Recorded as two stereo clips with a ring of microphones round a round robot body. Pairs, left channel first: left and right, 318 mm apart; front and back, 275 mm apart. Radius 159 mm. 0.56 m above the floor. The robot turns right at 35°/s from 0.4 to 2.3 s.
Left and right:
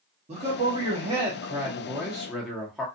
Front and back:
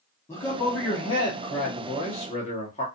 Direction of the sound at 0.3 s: 65° right.